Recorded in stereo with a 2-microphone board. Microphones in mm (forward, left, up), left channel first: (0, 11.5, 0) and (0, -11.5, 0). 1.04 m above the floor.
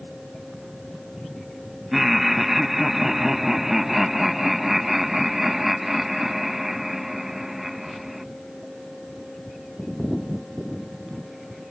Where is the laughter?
10° right (ahead or behind).